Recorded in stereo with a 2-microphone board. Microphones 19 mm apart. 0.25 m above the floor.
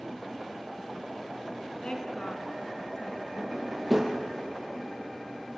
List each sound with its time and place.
1.8 s a woman speaking: 50° left (ahead or behind), 2.5 m; by 3.3 s 35° left (ahead or behind), 4 m
3.4 s a drawer: 10° right (ahead or behind), 2.5 m